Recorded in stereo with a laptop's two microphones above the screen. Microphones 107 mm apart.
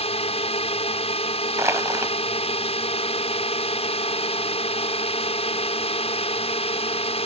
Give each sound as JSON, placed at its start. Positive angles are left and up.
{"t": 0.0, "sound": "a drone", "side_deg": 70}
{"t": 1.6, "sound": "crushing", "side_deg": -25}